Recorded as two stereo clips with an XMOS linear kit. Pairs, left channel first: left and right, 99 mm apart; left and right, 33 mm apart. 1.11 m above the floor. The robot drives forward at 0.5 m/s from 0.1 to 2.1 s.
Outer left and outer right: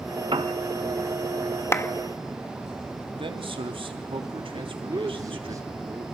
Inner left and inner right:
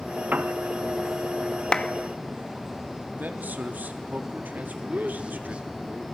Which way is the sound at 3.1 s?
60° right (ahead or behind).